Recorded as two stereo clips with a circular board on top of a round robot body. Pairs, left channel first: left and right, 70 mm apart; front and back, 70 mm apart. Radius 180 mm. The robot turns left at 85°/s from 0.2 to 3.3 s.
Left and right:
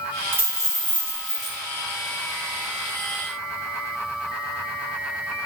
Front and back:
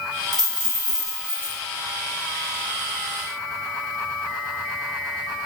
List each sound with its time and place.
0.3 s a dropped coin: 150° right, 1.8 m; by 1.6 s 105° left, 1.8 m